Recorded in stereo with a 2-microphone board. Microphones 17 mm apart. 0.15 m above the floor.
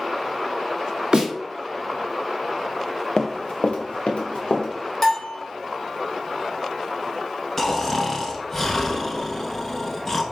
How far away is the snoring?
About 0.8 m.